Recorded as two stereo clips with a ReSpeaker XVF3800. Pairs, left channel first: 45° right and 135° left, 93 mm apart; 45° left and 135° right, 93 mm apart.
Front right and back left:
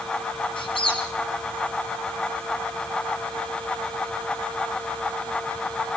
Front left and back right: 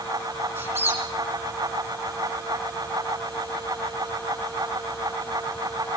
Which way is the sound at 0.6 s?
70° right.